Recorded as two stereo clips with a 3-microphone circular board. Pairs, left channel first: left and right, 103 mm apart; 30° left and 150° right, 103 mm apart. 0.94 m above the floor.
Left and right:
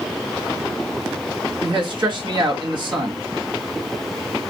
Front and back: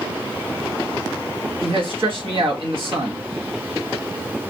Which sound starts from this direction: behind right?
A man speaking, at 1.6 s.